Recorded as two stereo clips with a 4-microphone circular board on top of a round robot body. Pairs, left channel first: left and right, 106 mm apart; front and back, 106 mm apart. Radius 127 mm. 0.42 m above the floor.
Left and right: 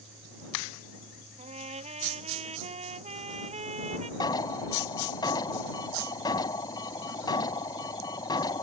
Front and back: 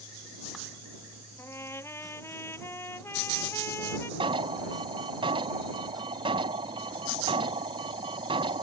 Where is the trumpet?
70° right.